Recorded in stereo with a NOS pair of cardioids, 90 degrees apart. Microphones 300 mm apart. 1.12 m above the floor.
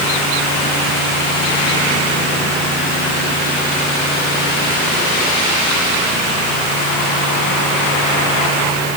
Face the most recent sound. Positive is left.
No sound to turn to.